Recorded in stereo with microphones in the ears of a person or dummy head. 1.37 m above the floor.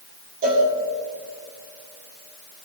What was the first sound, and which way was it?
A cowbell, 40° right (ahead or behind).